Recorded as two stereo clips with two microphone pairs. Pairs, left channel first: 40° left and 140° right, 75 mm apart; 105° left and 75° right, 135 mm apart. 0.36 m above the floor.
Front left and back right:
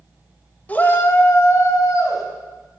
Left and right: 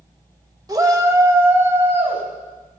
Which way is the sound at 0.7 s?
25° right.